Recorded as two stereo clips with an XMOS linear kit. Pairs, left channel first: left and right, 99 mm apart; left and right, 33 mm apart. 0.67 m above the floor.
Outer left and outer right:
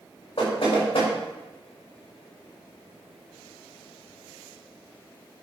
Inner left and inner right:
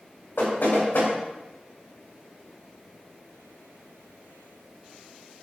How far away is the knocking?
About 4 m.